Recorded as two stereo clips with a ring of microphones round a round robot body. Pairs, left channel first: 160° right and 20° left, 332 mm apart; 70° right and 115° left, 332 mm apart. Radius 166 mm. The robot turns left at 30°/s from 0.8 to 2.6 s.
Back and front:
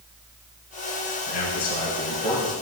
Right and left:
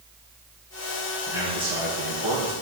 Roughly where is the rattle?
I don't hear a rattle.